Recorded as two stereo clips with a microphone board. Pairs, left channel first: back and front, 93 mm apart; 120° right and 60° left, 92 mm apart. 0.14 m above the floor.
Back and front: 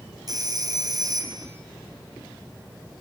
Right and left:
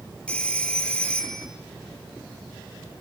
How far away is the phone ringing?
About 2.5 m.